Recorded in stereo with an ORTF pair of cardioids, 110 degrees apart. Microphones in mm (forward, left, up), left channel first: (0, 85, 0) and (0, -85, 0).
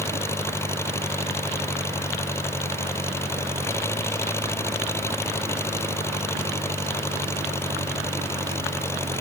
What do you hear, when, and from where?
0.0 s an engine running: 15° left